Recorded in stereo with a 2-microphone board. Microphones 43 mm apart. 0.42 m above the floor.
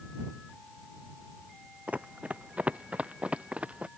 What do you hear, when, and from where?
1.9 s running footsteps: 35° right (ahead or behind); by 3.9 s 30° right (ahead or behind)